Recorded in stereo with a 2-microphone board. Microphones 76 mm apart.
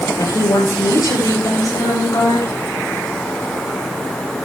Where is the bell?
No bell in this recording.